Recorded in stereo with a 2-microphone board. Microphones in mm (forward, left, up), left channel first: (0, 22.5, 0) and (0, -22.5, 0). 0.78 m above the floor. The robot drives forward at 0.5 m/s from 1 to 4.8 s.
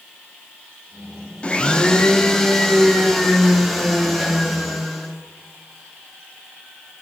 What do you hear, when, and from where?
1.4 s a blender: 30° left (ahead or behind), 0.5 m; by 5.1 s 5° left (ahead or behind), 2 m